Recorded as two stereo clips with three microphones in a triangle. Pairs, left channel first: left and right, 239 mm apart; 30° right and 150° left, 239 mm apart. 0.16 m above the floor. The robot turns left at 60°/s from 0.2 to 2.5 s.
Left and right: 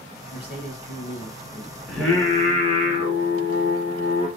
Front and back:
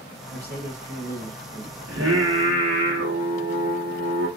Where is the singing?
Straight behind, 2 m; by 4.3 s 145° left, 2 m.